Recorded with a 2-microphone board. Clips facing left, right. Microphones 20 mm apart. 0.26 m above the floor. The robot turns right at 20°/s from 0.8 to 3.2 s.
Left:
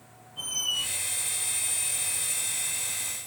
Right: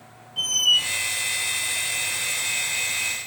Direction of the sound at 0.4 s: 65° right (ahead or behind).